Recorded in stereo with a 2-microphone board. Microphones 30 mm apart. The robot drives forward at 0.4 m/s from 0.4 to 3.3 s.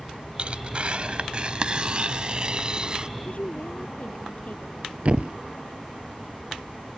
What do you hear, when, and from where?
0.4 s tearing paper: 40° right (ahead or behind); by 3.1 s 30° right (ahead or behind)
3.2 s a woman speaking: 55° left (ahead or behind)
5.0 s a thud: 50° right (ahead or behind)